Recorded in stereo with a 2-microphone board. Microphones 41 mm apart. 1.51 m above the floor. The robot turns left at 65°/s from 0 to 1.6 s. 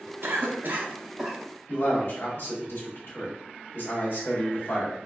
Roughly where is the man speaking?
Left.